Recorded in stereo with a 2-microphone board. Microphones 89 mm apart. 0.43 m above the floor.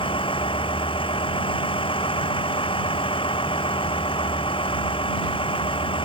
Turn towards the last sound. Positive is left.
turn(degrees=80)